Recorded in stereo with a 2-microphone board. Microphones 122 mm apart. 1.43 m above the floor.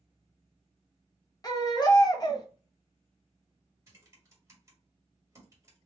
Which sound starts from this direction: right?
Typing on a keyboard, at 3.9 s.